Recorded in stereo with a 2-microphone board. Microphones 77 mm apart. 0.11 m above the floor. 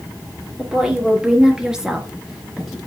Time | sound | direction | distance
0.6 | a woman speaking | 10° right (ahead or behind) | 3 m